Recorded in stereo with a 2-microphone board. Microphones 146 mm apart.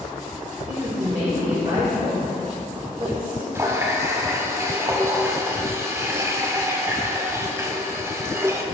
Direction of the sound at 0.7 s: 35° right (ahead or behind).